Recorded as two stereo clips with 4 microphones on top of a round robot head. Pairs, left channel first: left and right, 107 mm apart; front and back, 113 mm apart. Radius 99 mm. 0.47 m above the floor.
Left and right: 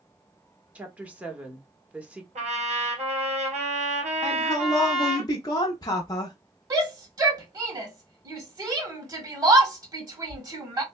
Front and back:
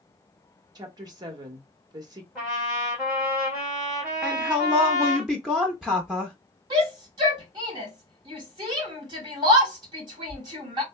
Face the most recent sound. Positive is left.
turn(degrees=-135)